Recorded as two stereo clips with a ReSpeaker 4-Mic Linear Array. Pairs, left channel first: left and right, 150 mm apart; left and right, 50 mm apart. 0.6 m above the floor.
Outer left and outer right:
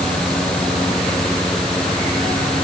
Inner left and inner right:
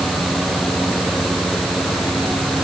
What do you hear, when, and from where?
Only background noise.